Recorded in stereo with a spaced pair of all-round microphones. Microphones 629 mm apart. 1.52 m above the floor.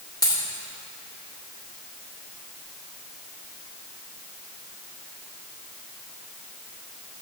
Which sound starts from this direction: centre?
A dropped coin, at 0.2 s.